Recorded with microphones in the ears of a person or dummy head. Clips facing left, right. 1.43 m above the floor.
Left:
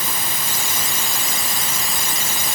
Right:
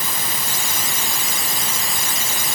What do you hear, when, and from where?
Only background noise.